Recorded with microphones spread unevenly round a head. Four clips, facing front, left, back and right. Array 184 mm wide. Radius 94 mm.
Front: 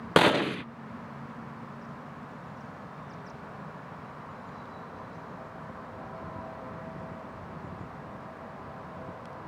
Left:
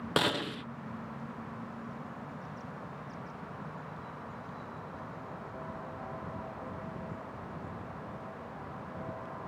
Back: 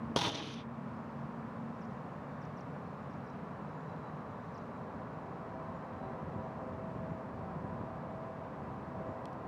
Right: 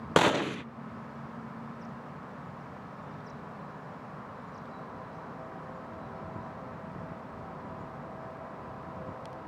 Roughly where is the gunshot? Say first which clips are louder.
Right 7 dB, front 16 dB; ahead right.